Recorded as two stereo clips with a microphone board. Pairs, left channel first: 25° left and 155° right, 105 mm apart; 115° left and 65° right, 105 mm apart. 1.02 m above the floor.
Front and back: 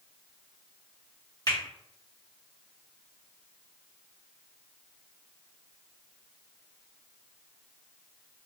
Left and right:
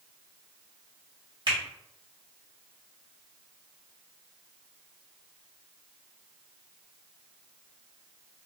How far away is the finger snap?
About 1.9 m.